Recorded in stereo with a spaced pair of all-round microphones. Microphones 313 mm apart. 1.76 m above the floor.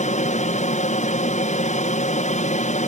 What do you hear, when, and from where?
0.0 s an aircraft: 20° left (ahead or behind)